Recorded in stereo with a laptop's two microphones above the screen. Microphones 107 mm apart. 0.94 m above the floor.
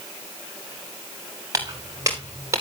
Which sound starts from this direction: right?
Footsteps, at 1.5 s.